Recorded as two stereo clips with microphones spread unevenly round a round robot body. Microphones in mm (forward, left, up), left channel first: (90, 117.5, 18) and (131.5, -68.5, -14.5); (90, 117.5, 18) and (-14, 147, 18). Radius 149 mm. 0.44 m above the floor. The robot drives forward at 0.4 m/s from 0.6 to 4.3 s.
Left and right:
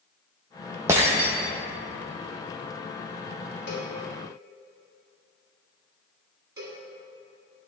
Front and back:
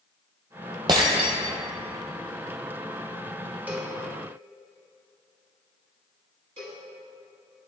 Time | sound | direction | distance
0.9 | breaking glass | 160° right | 0.5 m
3.7 | a cowbell | 90° left | 1.6 m
6.6 | a cowbell | 155° right | 1.5 m